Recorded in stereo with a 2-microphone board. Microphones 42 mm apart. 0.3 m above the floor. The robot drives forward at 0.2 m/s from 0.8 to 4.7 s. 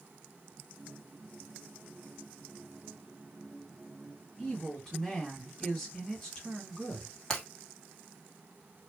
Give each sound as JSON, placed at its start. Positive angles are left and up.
{"t": 4.4, "sound": "a woman speaking", "side_deg": 20, "distance_m": 2.0}
{"t": 7.3, "sound": "breaking glass", "side_deg": 15, "distance_m": 2.0}